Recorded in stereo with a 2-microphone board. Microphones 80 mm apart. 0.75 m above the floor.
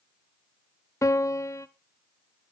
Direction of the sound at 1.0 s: 40° left (ahead or behind).